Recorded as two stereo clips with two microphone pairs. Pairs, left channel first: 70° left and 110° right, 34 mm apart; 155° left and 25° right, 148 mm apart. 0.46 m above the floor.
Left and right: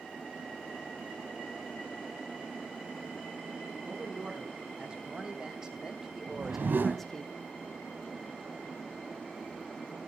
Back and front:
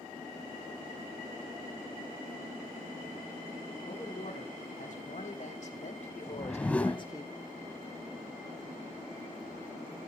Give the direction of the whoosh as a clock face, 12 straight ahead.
4 o'clock.